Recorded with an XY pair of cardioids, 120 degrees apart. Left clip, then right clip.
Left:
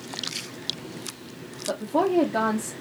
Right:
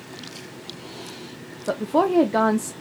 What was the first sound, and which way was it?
A woman speaking, 50° right.